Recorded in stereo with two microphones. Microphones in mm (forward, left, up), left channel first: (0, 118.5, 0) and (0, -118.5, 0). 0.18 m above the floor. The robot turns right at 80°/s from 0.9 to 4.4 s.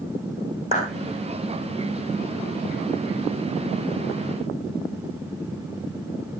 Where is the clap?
30° right (ahead or behind), 9 m.